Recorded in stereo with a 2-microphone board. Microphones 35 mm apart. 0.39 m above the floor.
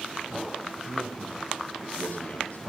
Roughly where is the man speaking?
Left.